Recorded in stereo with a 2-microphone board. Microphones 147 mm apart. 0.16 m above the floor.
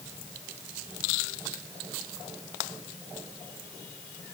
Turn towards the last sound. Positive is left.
No sound to turn to.